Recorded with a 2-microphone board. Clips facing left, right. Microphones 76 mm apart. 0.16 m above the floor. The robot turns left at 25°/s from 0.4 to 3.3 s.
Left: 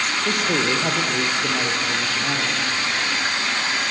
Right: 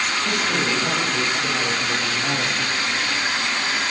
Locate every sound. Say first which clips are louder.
0.2 s a man speaking: left 3 dB; 45° left, 3.5 m; by 2.8 s 15° right, 3.5 m